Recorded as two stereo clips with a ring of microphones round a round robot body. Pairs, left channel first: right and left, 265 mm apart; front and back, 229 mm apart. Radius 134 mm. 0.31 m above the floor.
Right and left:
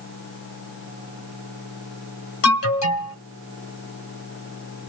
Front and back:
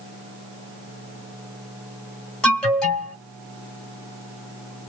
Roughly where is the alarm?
Right.